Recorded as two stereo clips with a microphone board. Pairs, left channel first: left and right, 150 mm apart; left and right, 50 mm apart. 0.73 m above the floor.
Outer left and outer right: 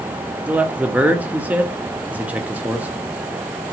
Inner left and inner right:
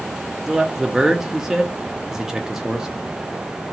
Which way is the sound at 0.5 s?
10° right (ahead or behind).